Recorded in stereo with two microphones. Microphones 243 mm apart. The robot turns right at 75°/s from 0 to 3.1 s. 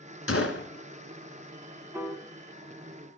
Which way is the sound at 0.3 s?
85° left.